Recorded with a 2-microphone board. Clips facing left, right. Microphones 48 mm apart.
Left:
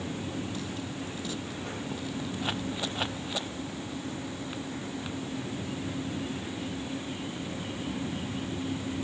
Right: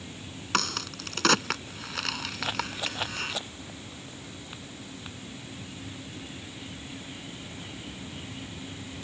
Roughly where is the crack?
Right.